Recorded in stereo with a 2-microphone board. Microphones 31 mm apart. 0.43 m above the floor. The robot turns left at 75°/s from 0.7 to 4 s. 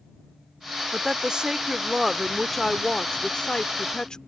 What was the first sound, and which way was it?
A woman speaking, 25° right (ahead or behind).